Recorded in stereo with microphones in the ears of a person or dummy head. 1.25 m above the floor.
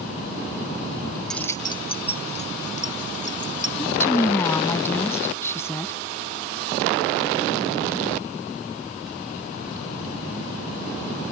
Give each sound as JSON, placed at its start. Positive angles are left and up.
{"t": 1.3, "sound": "keys jangling", "side_deg": 5}
{"t": 3.8, "sound": "a woman speaking", "side_deg": 15}